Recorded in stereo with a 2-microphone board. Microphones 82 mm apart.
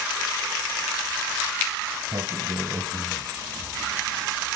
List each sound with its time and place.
2.1 s a sliding door: 60° right (ahead or behind), 0.9 m